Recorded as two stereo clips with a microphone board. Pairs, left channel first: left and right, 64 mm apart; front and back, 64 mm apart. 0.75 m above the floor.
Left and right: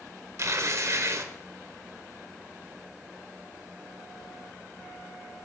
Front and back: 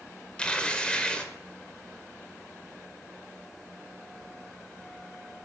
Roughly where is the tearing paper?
Right.